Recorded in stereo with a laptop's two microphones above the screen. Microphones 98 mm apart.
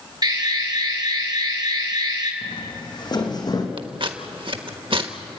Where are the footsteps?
55° left (ahead or behind), 3.5 m; by 3.7 s 40° left (ahead or behind), 3 m.